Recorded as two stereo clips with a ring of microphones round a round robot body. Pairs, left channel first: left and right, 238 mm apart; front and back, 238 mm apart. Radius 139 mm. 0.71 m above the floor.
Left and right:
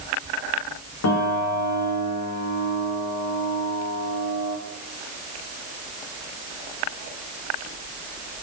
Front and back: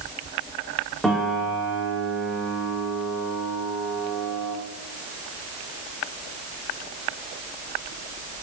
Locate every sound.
1.0 s a piano: 90° left, 2 m